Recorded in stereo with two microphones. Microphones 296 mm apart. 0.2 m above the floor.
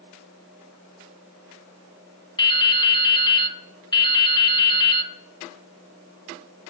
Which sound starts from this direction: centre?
Dripping, at 2.4 s.